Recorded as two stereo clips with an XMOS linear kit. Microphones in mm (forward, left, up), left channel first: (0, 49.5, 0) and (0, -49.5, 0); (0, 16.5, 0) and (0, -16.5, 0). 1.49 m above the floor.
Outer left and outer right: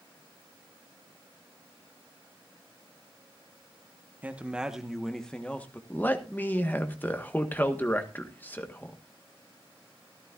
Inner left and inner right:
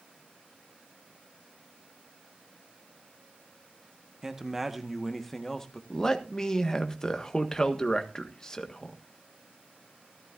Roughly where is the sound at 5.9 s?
Centre.